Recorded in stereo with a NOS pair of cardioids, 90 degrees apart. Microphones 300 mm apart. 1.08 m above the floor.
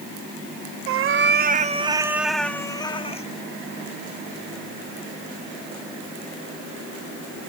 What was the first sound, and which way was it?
A cat meowing, 50° right.